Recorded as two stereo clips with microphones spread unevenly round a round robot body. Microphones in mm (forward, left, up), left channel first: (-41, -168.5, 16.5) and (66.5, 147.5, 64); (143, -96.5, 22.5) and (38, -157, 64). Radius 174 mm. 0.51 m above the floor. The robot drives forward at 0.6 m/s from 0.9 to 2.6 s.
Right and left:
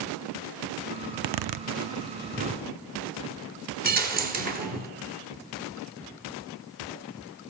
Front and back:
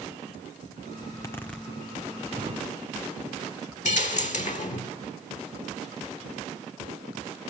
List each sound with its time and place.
1.0 s a zipper: 55° left, 0.6 m; by 2.7 s 150° left, 0.9 m
3.9 s a dropped coin: 10° left, 1.6 m